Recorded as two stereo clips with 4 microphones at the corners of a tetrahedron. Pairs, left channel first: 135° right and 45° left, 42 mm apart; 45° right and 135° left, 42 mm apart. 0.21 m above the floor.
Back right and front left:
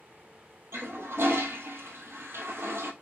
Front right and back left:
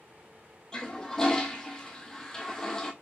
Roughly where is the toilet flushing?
Ahead left.